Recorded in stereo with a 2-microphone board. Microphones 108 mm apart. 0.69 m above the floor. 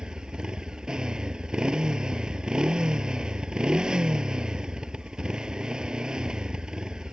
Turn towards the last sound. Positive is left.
turn(degrees=-5)  # may be behind; listen again after turning